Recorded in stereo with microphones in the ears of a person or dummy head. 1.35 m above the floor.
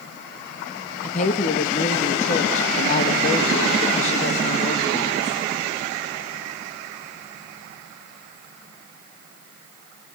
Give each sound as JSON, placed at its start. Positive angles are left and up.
{"t": 1.0, "sound": "a woman speaking", "side_deg": 45, "distance_m": 1.7}